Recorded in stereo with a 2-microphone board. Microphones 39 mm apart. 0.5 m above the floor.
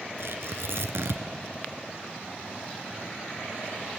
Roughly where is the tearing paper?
Right.